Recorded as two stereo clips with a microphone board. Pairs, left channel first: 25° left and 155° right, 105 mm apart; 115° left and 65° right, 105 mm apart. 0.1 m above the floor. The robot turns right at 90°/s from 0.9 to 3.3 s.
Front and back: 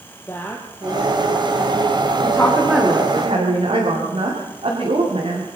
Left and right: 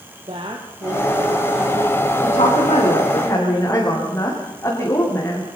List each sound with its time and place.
0.3 s a woman speaking: 45° right, 2.5 m; by 3.2 s 165° left, 2.5 m
2.2 s a woman speaking: 80° left, 7 m; by 5.5 s straight behind, 7 m